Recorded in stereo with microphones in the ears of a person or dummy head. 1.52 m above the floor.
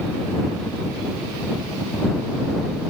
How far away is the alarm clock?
No alarm clock in this recording.